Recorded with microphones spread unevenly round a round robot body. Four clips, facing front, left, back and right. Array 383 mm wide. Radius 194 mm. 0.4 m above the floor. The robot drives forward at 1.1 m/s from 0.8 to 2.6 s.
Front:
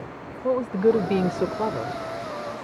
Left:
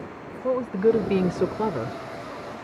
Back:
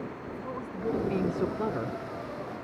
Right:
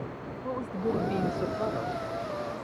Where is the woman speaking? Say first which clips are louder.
Left 10 dB, front 14 dB; 40° left; by 2.0 s 100° left.